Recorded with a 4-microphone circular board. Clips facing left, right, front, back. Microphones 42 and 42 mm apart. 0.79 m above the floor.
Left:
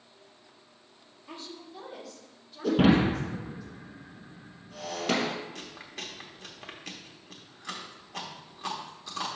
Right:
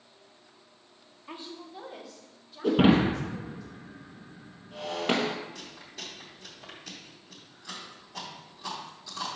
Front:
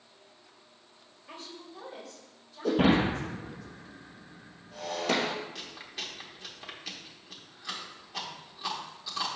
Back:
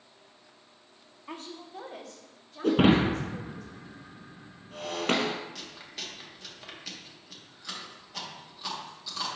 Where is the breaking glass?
155° right, 1.5 m.